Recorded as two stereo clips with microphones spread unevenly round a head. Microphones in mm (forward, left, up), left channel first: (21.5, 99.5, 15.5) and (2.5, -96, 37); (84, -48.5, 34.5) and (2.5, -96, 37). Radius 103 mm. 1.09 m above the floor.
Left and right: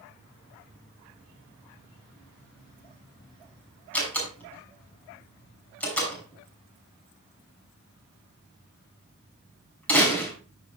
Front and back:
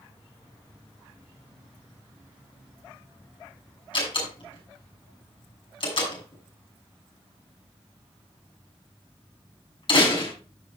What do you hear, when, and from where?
3.9 s a door slam: straight ahead, 6 m